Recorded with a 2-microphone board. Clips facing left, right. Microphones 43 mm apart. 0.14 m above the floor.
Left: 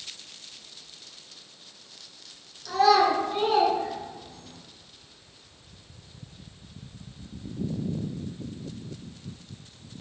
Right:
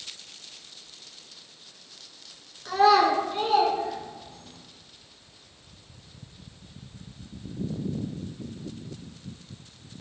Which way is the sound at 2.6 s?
35° right (ahead or behind).